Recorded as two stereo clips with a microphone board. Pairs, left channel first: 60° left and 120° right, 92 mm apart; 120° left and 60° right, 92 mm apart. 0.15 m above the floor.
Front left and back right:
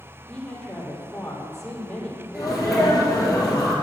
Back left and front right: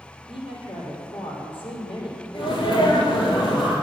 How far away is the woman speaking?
About 4 m.